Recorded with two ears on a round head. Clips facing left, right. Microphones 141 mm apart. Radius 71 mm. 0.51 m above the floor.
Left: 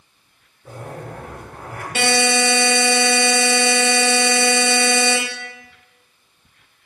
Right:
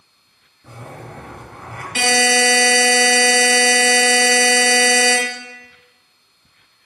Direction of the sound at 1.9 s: 25° left (ahead or behind).